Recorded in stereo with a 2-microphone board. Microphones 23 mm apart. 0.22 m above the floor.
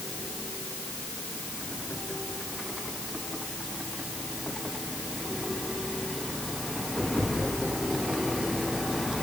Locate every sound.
Only background noise.